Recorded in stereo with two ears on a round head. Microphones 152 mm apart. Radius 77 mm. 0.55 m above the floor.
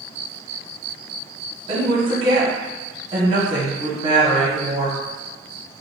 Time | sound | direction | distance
1.7 | a woman speaking | 30° right (ahead or behind) | 1.3 m